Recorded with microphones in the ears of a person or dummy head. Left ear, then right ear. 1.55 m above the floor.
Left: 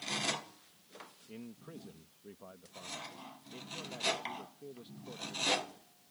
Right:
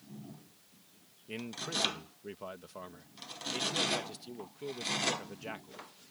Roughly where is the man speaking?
Right.